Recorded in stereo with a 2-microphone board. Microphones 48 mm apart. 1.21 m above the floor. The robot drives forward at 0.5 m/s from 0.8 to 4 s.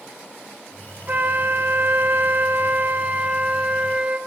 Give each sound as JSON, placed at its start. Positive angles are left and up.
{"t": 1.1, "sound": "a flute", "side_deg": -35, "distance_m": 0.9}